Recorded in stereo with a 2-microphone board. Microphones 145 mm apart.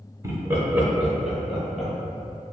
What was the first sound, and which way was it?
Laughter, 20° right (ahead or behind).